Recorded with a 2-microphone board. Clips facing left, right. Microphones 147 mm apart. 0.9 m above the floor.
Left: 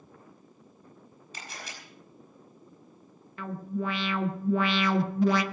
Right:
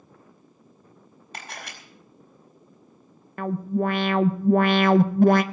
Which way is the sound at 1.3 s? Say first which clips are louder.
Right 4 dB; 65° right (ahead or behind).